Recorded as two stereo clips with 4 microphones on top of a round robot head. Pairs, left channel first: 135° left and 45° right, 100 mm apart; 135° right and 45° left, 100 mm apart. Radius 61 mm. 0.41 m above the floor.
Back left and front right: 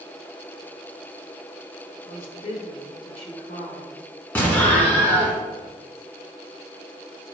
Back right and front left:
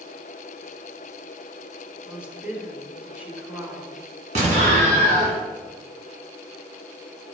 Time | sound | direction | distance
2.0 | a woman speaking | 120° left | 1.8 m
4.3 | an explosion | 60° left | 1.6 m